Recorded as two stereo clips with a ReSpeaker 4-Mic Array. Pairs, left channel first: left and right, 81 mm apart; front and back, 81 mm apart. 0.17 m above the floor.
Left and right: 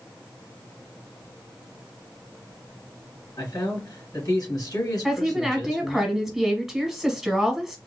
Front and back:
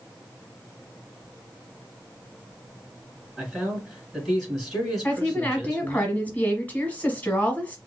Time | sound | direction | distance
3.4 | a man speaking | 90° left | 2.5 m
5.0 | a woman speaking | 10° right | 1.1 m